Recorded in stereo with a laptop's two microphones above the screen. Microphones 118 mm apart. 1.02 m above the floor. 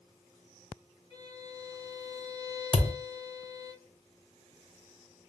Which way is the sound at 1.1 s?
40° left (ahead or behind).